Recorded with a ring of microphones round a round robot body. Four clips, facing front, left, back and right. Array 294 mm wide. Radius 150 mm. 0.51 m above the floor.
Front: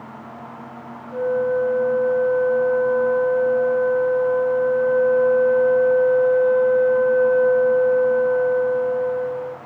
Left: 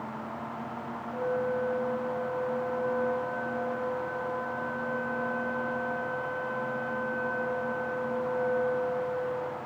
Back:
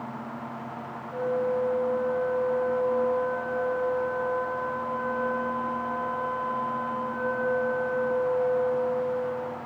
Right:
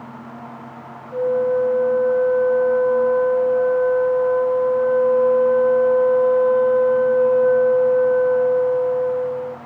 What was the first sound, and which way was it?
A flute, 60° right.